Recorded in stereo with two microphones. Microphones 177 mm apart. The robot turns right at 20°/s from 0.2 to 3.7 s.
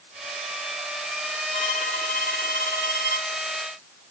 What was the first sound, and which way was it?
A violin, 40° left.